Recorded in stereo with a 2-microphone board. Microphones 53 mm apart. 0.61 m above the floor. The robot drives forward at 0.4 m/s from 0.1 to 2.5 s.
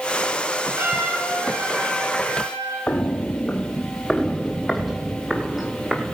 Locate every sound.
0.8 s a trumpet: 60° right (ahead or behind), 6.5 m; by 2.8 s 65° right (ahead or behind), 6.5 m
2.9 s footsteps: 30° left (ahead or behind), 0.7 m; by 6.2 s 5° right (ahead or behind), 2 m